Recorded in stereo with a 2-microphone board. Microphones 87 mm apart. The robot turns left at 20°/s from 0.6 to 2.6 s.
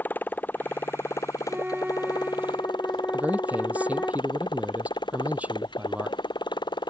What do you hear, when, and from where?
0.0 s a motorcycle: 160° left; by 6.9 s 120° left
1.5 s a flute: 15° right (ahead or behind); by 4.1 s 5° left (ahead or behind)
3.1 s a man speaking: 15° right (ahead or behind)